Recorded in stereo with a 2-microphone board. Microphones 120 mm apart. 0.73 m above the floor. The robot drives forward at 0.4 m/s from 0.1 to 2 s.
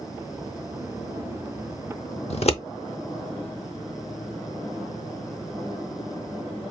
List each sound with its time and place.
2.3 s scissors: 60° left (ahead or behind), 0.5 m